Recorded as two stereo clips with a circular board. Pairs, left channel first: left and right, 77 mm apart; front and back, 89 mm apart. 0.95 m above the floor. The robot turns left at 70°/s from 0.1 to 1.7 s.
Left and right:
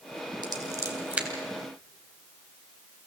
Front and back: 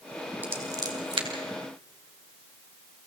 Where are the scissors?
110° right, 3 m; by 1.3 s 170° right, 3 m.